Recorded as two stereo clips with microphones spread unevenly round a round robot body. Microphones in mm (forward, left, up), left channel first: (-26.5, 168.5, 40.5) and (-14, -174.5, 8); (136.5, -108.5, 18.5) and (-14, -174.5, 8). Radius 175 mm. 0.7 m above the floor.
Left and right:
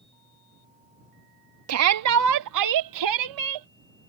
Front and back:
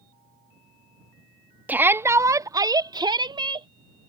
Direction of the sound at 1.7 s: 85° right.